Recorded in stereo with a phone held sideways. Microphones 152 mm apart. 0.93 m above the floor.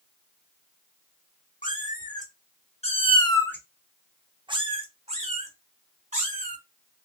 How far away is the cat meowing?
About 1.2 m.